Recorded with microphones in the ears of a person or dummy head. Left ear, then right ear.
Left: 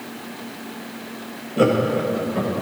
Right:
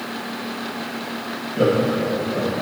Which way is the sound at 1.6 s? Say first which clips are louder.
Left 1 dB; 35° left (ahead or behind).